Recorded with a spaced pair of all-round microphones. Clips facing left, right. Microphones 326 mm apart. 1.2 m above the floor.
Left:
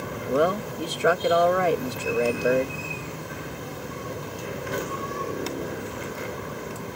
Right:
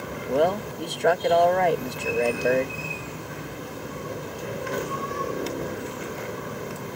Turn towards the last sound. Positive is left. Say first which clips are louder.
# even
turn(degrees=10)  # may be behind; listen again after turning